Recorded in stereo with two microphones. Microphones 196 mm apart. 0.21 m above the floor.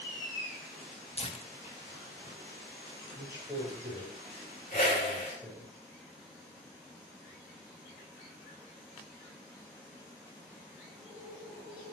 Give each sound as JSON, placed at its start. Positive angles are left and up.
{"t": 1.2, "sound": "tearing paper", "side_deg": 30, "distance_m": 0.8}
{"t": 3.1, "sound": "a man speaking", "side_deg": -15, "distance_m": 5.5}
{"t": 4.7, "sound": "a whoosh", "side_deg": 55, "distance_m": 4.5}